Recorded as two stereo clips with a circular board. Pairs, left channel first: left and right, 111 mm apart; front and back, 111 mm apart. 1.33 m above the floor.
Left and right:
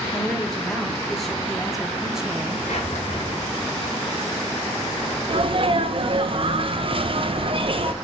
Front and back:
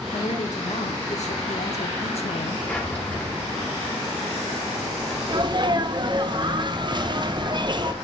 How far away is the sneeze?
About 0.9 m.